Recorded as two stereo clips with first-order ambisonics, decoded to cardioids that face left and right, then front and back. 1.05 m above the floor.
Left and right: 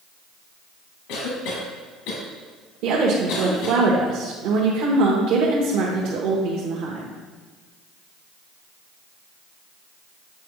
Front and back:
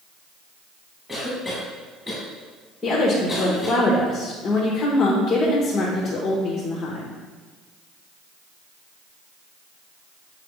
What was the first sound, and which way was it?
A cough, 95° left.